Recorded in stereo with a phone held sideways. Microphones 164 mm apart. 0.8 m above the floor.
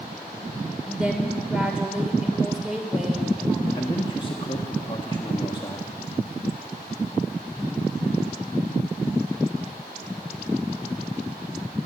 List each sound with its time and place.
0.9 s a woman speaking: 5° right (ahead or behind), 2.5 m
3.8 s a man speaking: 30° left (ahead or behind), 1.2 m